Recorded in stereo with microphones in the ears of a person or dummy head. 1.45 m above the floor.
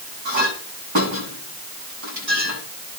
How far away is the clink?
About 9 m.